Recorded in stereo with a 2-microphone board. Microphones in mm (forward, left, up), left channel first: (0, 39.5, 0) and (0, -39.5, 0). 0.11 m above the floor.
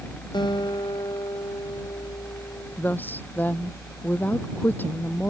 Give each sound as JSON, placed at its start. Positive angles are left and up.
{"t": 0.3, "sound": "a guitar", "side_deg": 70}
{"t": 2.8, "sound": "a woman speaking", "side_deg": 25}